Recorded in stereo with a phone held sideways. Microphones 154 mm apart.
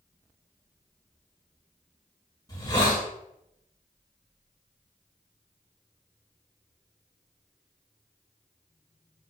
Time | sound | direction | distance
2.5 | a hiss | 25° left (ahead or behind) | 1.3 m